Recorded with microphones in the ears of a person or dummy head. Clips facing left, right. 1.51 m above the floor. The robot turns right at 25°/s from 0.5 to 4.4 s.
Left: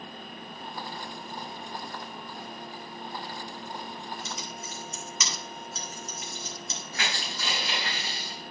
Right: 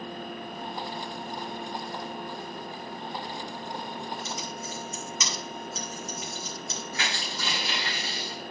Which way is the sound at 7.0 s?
20° right (ahead or behind).